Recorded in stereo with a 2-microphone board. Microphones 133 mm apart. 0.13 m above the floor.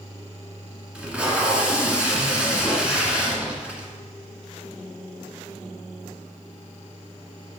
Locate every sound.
0.9 s tape being pulled: 5° right (ahead or behind), 1.4 m